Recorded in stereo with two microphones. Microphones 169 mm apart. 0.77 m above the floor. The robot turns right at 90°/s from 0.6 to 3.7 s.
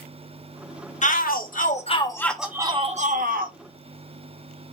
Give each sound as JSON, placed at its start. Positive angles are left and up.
{"t": 1.0, "sound": "a shout", "azimuth_deg": 60, "distance_m": 0.8}